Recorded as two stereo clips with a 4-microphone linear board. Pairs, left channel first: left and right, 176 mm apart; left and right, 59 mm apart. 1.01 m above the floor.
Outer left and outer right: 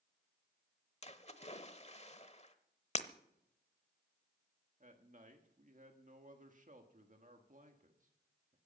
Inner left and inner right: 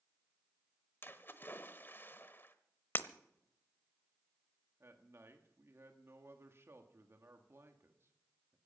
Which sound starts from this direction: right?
A man speaking, at 4.8 s.